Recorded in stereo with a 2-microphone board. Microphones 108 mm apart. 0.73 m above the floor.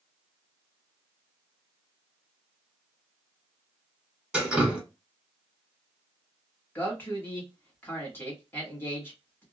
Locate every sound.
4.3 s dripping: 5° right (ahead or behind), 1.4 m
6.8 s a man speaking: 20° left (ahead or behind), 1.4 m